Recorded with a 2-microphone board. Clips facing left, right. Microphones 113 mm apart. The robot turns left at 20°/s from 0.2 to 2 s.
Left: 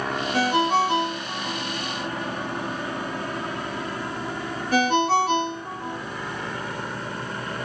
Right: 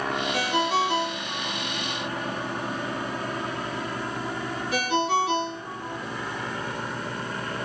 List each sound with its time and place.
0.3 s a ringtone: 50° left (ahead or behind), 0.9 m; by 6.0 s 45° left (ahead or behind), 0.9 m